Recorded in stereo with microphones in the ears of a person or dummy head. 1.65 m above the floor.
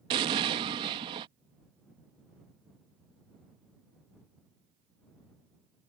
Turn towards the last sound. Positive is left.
turn(degrees=-25)  # may be behind; listen again after turning